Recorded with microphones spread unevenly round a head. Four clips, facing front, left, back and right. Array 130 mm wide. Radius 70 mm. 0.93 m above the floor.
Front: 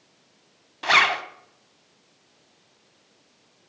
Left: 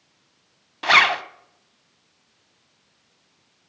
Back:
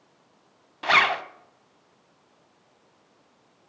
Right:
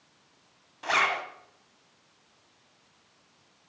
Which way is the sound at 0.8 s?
65° left.